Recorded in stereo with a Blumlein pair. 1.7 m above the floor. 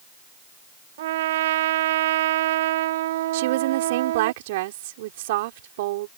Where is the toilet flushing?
No toilet flushing in this recording.